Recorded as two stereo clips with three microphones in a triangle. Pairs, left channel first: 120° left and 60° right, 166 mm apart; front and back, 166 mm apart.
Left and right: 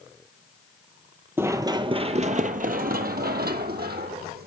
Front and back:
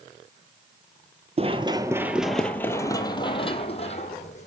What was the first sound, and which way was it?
Running footsteps, 135° right.